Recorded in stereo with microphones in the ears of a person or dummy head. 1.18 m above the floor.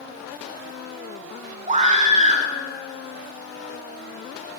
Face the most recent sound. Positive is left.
turn(degrees=-45)  # may be behind; listen again after turning